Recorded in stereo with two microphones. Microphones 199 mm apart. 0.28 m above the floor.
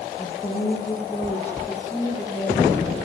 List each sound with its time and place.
0.2 s a woman speaking: 25° left (ahead or behind), 6.5 m; by 3.0 s 15° left (ahead or behind), 7 m